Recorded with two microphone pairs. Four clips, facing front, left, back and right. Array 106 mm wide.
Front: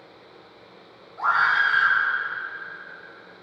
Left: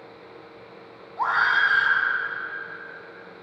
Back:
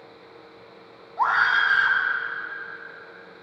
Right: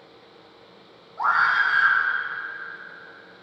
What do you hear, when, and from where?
1.2 s a scream: 170° left, 4.5 m